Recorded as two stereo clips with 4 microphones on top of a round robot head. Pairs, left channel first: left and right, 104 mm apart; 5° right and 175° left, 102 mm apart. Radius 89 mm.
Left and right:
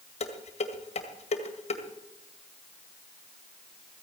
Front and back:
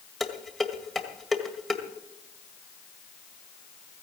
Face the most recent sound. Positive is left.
turn(degrees=85)